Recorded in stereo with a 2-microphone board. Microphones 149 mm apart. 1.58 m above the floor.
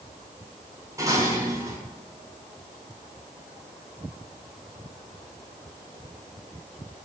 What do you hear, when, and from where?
1.0 s dishes clattering: 20° right (ahead or behind), 8.5 m